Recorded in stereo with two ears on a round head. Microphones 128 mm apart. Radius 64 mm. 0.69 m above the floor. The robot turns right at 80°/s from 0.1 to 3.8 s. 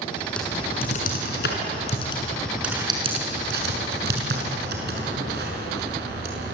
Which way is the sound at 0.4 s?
5° left (ahead or behind).